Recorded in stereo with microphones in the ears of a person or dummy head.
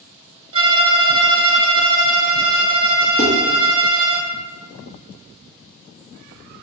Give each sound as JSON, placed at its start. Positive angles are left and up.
{"t": 0.5, "sound": "a violin", "side_deg": -30, "distance_m": 0.7}
{"t": 3.2, "sound": "dishes clattering", "side_deg": -35, "distance_m": 1.0}